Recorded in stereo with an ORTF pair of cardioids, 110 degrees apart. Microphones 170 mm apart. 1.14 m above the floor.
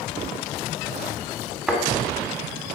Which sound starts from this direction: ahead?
A thud, at 1.7 s.